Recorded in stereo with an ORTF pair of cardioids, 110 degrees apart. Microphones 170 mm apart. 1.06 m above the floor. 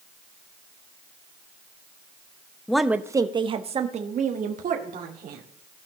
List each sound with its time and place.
2.7 s a woman speaking: 5° left, 0.8 m; by 5.4 s 55° right, 2.5 m